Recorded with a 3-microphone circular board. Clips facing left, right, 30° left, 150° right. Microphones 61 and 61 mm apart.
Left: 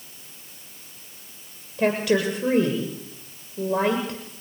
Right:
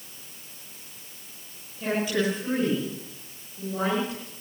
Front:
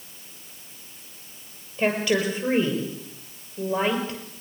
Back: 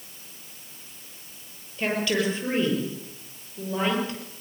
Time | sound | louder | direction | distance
1.8 | a woman speaking | left 5 dB, front 2 dB | 105° left | 7 m